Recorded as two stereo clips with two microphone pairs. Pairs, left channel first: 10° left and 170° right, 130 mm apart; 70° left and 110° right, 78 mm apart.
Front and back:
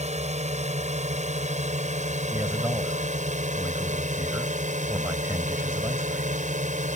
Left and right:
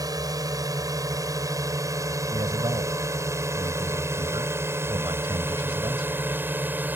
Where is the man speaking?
95° right.